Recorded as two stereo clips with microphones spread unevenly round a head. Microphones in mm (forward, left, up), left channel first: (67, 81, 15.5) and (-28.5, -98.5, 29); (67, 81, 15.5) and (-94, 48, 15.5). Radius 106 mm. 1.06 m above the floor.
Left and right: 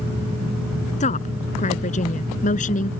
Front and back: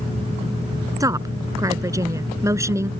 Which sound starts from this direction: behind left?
A woman speaking, at 1.0 s.